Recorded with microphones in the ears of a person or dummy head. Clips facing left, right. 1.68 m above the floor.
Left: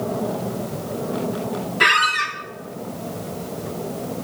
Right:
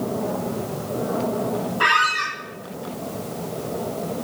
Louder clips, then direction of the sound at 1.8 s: Left 1 dB; 20° left (ahead or behind).